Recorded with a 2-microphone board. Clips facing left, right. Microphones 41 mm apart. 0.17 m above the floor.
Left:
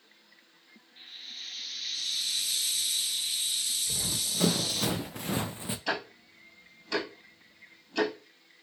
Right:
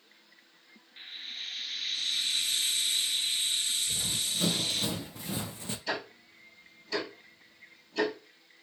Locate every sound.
1.0 s frying: 40° right (ahead or behind), 0.5 m
3.9 s running footsteps: 80° left, 1.6 m; by 5.8 s 10° left (ahead or behind), 0.5 m
5.9 s ticking: 75° left (ahead or behind), 2.0 m